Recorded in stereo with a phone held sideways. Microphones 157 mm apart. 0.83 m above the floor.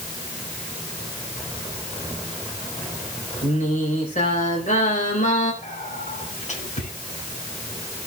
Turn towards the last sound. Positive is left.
turn(degrees=60)  # may be behind; listen again after turning